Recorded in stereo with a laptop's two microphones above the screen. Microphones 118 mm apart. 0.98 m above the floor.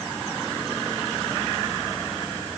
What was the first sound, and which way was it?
Only background noise.